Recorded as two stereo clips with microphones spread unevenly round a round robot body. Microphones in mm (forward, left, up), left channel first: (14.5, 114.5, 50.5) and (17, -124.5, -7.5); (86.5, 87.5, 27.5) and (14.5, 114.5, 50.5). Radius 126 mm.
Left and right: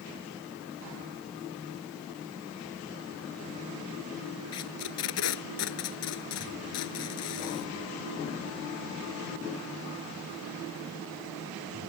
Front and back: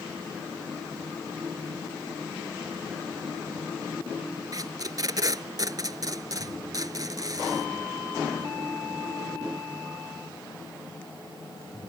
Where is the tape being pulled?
125° left.